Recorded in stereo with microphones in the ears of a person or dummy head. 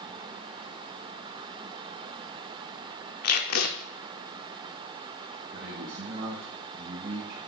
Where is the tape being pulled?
55° left (ahead or behind), 0.6 m.